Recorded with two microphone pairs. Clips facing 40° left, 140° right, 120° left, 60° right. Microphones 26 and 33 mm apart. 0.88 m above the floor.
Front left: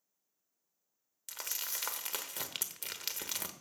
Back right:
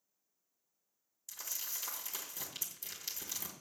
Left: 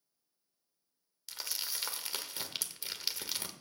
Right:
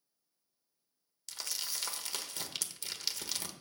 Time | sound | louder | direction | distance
1.3 | crumpling | front left 4 dB, even | 45° left | 1.0 m